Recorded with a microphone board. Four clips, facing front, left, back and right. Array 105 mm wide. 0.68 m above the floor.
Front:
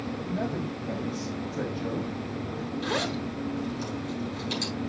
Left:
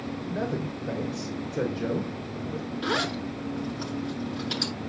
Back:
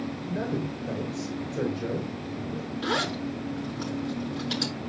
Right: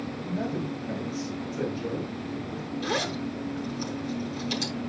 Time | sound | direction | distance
0.3 | a man speaking | 125° left | 3.5 m
2.8 | a zipper | 130° left | 9.5 m